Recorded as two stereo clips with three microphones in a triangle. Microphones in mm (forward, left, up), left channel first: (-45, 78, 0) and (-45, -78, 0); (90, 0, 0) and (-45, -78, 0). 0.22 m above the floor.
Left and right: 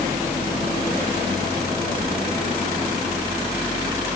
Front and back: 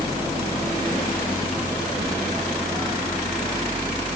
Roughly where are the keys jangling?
Ahead.